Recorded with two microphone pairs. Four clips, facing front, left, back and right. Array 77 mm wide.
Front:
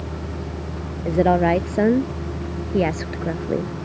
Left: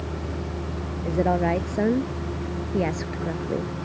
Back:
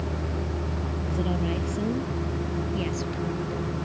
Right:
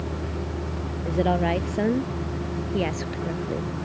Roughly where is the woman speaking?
Ahead.